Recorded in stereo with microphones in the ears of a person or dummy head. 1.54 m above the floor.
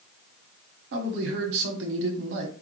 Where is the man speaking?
65° right (ahead or behind), 1.0 m.